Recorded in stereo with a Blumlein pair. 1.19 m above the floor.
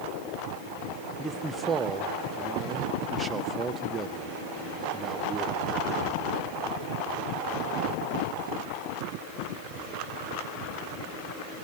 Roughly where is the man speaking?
Ahead.